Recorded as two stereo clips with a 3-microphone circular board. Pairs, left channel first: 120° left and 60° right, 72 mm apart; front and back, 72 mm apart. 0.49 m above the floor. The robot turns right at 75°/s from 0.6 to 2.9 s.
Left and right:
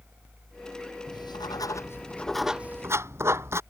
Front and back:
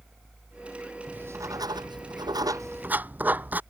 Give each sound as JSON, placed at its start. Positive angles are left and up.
{"t": 1.1, "sound": "writing", "azimuth_deg": 110}